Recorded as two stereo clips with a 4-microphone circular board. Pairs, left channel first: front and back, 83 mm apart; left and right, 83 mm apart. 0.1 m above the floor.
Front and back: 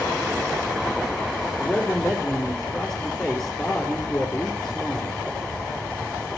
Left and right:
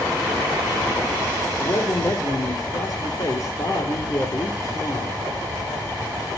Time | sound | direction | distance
1.6 | a man speaking | 85° left | 2 m